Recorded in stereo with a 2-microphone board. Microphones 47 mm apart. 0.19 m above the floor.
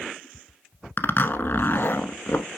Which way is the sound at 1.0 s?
45° left (ahead or behind).